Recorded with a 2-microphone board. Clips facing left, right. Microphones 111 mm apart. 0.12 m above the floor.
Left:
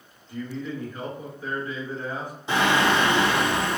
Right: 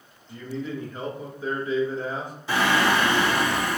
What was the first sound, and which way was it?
A man speaking, 25° right (ahead or behind).